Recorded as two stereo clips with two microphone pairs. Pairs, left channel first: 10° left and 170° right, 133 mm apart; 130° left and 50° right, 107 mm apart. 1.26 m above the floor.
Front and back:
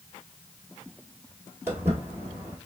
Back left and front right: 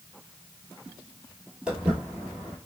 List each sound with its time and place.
1.7 s footsteps: 120° right, 1.3 m